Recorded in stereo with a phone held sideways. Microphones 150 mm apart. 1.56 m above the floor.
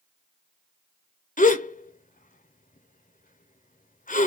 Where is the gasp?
65° left (ahead or behind), 0.6 m.